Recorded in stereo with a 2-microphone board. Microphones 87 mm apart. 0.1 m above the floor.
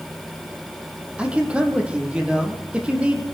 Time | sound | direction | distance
1.2 | a man speaking | 15° right (ahead or behind) | 3.5 m